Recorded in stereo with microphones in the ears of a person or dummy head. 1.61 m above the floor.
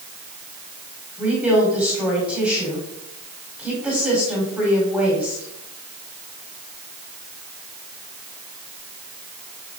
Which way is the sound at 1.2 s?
5° right (ahead or behind).